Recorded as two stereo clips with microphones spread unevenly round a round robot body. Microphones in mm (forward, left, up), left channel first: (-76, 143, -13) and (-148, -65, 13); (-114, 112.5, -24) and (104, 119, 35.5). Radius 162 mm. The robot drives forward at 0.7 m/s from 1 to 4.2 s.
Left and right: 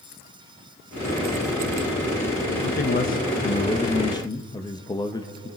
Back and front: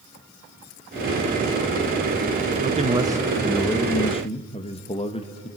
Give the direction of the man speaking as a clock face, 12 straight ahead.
10 o'clock.